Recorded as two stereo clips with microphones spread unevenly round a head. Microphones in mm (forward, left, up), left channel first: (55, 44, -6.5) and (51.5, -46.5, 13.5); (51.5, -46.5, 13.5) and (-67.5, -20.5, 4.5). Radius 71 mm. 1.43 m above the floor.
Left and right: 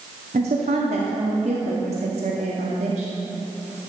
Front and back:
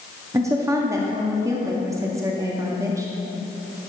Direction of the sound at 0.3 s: 130° right.